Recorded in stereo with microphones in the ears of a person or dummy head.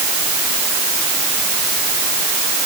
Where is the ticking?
No ticking in this recording.